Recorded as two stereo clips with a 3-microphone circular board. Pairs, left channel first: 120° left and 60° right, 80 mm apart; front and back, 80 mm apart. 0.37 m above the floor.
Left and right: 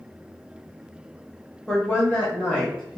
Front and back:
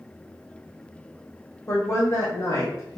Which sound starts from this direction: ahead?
A woman speaking, at 1.7 s.